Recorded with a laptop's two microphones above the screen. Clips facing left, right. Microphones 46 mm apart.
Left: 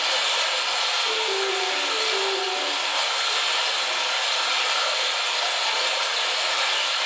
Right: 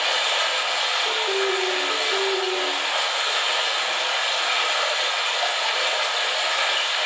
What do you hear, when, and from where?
0.0 s running water: 25° right (ahead or behind), 1.1 m
1.1 s a piano: 25° right (ahead or behind), 0.5 m